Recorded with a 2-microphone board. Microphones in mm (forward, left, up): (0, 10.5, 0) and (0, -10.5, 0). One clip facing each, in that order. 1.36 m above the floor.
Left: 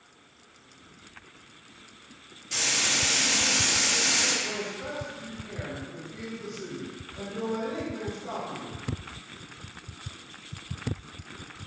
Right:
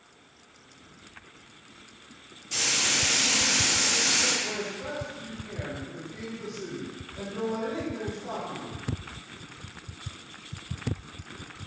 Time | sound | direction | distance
2.5 | frying | 15° left (ahead or behind) | 1.8 m
4.4 | a man speaking | 20° left (ahead or behind) | 1.5 m